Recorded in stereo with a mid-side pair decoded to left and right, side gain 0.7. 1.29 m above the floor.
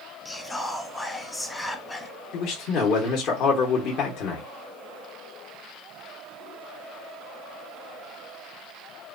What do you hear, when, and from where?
0.2 s whispering: 10° left, 0.7 m
2.3 s a man speaking: 55° left, 0.9 m